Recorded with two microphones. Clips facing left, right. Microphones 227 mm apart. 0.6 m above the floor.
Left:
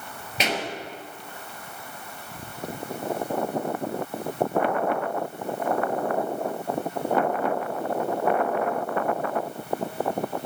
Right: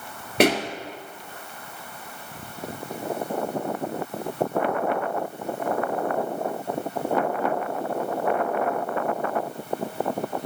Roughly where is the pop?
Right.